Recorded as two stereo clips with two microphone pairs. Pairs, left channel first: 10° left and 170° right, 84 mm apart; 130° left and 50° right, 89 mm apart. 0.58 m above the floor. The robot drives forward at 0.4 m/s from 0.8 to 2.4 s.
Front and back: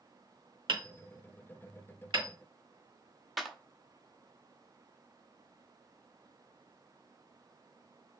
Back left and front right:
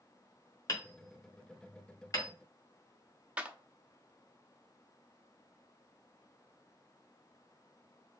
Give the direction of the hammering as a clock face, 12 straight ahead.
6 o'clock.